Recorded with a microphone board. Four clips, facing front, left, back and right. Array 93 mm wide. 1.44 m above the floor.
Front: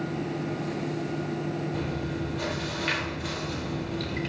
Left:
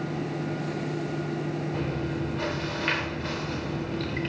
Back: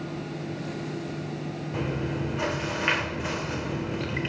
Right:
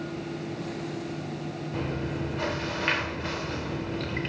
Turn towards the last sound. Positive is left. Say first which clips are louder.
# left 1 dB, back 1 dB
turn(degrees=-165)